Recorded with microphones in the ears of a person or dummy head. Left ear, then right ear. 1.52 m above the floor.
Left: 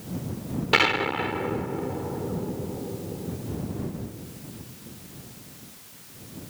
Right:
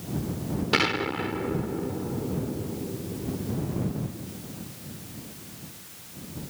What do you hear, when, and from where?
0.7 s an explosion: 30° left (ahead or behind)